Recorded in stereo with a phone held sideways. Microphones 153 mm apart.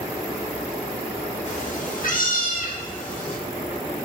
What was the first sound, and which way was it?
A cat meowing, 50° left (ahead or behind).